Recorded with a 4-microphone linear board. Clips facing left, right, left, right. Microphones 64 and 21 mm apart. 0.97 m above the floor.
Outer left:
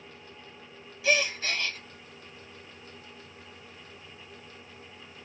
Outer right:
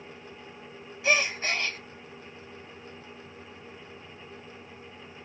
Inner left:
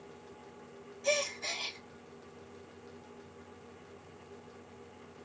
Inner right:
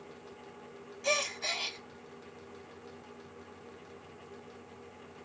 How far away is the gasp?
About 0.9 m.